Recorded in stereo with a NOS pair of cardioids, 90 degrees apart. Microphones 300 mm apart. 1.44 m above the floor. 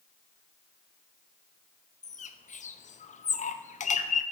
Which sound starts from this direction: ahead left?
A bird, at 2.0 s.